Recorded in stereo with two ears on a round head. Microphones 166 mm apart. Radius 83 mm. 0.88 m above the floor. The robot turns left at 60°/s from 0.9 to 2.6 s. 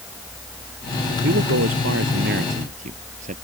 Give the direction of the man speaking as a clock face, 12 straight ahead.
2 o'clock.